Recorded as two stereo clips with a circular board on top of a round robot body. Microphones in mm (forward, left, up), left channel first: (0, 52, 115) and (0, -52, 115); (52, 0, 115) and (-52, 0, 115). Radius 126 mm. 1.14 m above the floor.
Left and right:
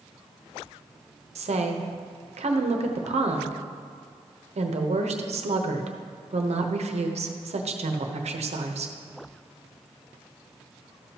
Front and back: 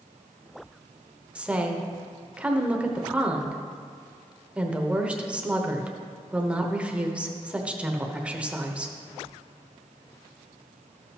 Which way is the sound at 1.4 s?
100° right.